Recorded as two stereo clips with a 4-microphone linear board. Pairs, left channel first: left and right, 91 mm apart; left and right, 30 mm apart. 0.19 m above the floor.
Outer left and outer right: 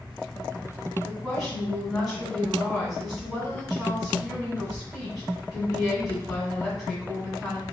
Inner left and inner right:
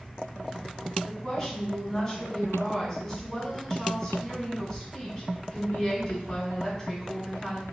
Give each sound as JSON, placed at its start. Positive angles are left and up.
{"t": 1.0, "sound": "a woman speaking", "side_deg": 5, "distance_m": 1.2}